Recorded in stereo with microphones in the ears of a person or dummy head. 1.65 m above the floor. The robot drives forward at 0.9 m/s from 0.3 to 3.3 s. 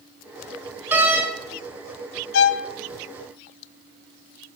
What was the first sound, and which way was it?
A door slam, 10° right (ahead or behind).